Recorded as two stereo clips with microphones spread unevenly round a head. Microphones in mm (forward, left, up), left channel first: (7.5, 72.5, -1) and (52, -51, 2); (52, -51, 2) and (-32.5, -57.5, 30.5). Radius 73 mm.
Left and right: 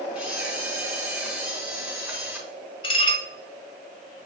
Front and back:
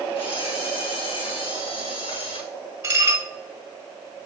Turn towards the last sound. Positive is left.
turn(degrees=155)